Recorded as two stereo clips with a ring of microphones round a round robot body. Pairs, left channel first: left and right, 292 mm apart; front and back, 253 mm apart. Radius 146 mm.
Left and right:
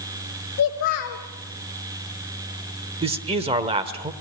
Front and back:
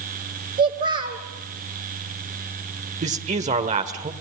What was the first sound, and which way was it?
A child speaking, 130° left.